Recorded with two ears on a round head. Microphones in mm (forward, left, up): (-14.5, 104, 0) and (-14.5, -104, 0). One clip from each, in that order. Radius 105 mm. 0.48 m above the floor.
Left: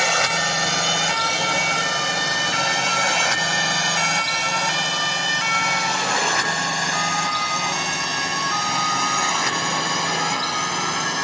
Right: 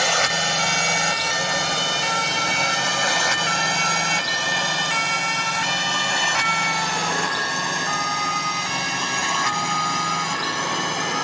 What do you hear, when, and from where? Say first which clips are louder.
0.0 s a drone: even; 5° right (ahead or behind); by 11.2 s 10° left (ahead or behind)